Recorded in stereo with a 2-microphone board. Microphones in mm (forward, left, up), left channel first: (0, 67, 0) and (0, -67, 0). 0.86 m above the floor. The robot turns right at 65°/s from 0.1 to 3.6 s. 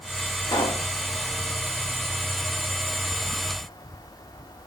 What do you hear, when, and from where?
0.4 s a pop: 20° left (ahead or behind), 1.5 m; by 0.8 s 45° left (ahead or behind), 1.5 m